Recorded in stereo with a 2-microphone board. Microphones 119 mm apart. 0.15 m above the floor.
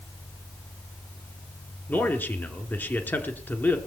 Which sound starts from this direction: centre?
A man speaking, at 1.9 s.